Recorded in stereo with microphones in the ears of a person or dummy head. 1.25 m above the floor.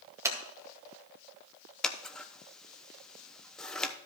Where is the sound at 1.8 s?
5° left (ahead or behind), 0.8 m.